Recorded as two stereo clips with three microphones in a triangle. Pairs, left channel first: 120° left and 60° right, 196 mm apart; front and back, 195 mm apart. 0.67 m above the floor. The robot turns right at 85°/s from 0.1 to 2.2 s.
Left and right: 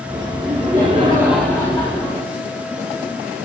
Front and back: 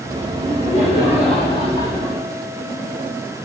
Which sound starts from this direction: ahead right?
Laughter, at 0.4 s.